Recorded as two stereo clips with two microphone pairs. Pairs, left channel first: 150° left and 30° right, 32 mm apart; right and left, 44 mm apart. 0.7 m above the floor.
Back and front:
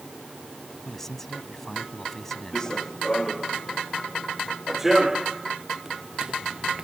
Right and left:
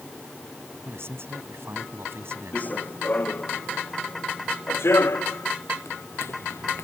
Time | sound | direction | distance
0.8 | a man speaking | 75° left | ?
2.5 | running footsteps | 140° right | ?